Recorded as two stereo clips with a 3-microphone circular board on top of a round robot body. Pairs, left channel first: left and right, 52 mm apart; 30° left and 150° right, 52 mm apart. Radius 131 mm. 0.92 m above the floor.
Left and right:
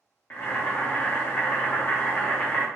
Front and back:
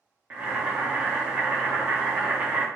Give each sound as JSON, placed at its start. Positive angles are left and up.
{"t": 0.3, "sound": "boiling", "azimuth_deg": 150, "distance_m": 0.8}